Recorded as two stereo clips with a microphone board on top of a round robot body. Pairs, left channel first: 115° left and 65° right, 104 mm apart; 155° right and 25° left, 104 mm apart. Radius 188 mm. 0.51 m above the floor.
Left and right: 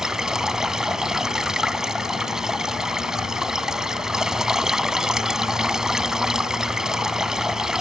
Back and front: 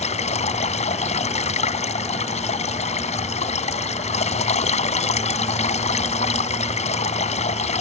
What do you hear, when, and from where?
0.0 s running water: 155° right